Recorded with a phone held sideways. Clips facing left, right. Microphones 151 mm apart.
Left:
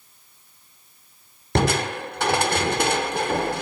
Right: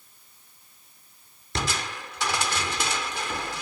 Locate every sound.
1.6 s crushing: 60° left (ahead or behind)